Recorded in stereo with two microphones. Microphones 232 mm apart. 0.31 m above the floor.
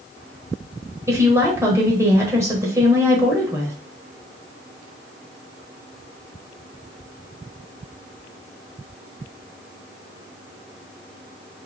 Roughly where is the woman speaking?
Centre.